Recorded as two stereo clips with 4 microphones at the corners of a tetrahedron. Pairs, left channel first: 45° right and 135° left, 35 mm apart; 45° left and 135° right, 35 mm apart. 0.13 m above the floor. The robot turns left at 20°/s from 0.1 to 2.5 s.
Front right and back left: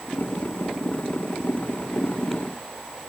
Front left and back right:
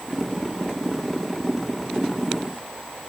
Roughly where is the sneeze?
No sneeze in this recording.